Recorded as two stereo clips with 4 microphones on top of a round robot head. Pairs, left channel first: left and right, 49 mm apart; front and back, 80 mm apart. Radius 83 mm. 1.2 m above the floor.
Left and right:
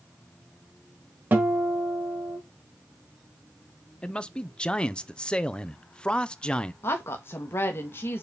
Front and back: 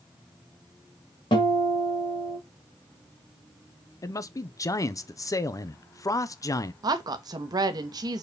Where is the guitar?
45° right, 1.8 m.